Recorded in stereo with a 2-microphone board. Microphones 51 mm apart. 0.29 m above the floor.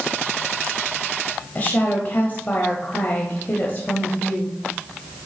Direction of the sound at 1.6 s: 35° left (ahead or behind).